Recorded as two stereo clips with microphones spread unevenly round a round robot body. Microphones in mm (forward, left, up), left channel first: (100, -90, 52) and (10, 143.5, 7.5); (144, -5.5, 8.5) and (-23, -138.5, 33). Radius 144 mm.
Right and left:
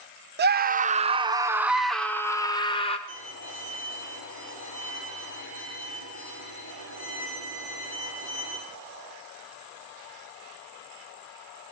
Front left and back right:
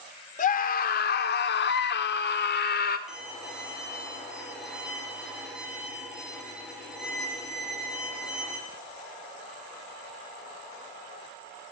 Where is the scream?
80° left, 1.0 m; by 3.0 s 5° left, 1.3 m.